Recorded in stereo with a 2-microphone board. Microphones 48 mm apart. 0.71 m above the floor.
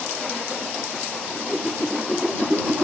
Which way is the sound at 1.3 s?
5° right (ahead or behind).